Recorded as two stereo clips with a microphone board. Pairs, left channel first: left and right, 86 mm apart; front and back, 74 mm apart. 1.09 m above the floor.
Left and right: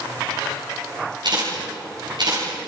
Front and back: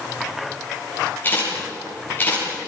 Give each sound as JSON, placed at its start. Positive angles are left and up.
{"t": 1.2, "sound": "a camera shutter", "azimuth_deg": -60, "distance_m": 9.5}